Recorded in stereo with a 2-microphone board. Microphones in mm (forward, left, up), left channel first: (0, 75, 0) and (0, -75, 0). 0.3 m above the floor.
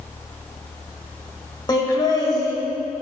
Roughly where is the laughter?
Left.